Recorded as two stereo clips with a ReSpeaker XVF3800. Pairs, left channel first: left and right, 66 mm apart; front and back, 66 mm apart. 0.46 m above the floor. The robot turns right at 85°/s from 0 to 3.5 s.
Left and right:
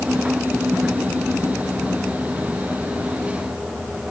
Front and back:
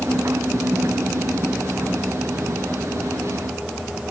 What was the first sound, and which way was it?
Only background noise.